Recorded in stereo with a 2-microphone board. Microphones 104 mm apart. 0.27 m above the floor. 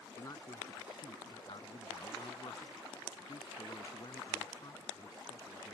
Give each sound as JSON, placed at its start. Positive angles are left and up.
{"t": 0.2, "sound": "a man speaking", "side_deg": 35}